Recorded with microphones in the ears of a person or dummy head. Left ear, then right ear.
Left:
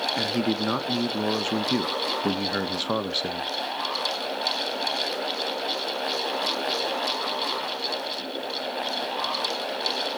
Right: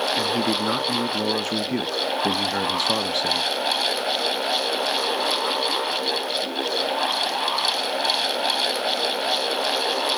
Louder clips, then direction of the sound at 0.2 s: Right 4 dB; centre (ahead or behind).